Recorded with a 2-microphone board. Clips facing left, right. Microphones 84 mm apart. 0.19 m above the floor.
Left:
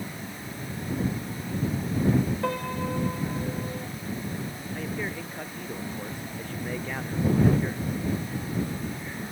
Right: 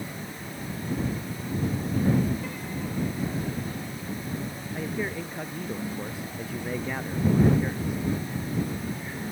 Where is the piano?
70° left (ahead or behind).